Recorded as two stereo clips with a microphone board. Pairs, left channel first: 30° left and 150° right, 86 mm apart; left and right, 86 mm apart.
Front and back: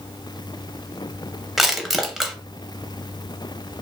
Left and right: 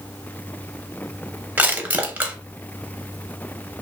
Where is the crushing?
65° right, 0.5 m.